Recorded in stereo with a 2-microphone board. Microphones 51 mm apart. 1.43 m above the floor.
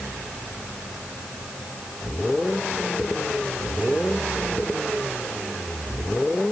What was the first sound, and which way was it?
Only background noise.